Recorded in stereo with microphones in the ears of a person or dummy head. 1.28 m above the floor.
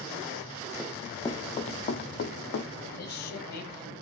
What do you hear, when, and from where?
0.8 s running footsteps: 10° right (ahead or behind), 1.7 m; by 2.9 s 65° left (ahead or behind), 3 m
3.0 s a man speaking: 65° left (ahead or behind), 9 m